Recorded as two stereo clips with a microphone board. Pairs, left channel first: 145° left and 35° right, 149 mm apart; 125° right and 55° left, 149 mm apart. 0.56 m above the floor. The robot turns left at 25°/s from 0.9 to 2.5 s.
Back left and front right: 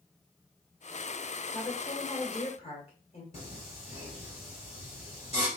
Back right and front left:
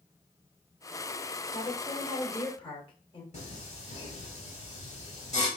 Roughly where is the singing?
Behind.